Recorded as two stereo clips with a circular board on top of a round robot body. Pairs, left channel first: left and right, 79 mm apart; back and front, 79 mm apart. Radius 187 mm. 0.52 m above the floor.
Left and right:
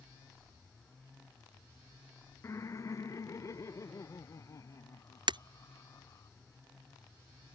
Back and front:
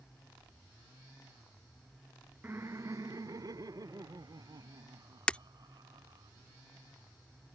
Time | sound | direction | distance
2.4 | laughter | 55° left | ?
5.3 | breaking glass | 105° right | ?